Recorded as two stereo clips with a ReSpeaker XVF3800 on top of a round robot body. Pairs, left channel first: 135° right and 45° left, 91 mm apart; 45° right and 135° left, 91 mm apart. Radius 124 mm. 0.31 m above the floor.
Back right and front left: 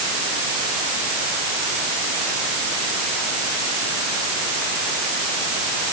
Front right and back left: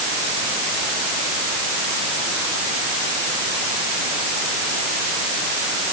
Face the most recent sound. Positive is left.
No sound to turn to.